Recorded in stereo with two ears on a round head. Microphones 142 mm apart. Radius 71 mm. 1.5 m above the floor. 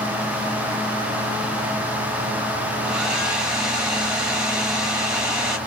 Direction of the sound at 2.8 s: 5° right (ahead or behind).